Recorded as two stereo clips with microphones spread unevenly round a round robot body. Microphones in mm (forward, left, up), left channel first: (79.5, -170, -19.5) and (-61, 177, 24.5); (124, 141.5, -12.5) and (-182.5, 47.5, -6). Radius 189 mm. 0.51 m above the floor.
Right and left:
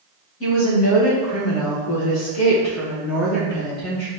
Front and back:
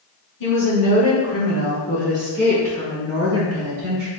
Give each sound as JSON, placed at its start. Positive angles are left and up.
{"t": 0.4, "sound": "a woman speaking", "azimuth_deg": -20, "distance_m": 1.9}